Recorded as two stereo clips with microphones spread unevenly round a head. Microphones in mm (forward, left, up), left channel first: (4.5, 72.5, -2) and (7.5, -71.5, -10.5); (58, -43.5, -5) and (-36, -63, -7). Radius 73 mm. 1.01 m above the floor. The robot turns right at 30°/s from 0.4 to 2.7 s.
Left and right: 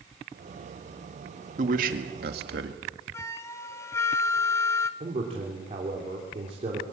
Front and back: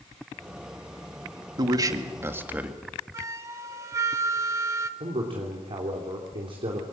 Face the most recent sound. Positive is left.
turn(degrees=-140)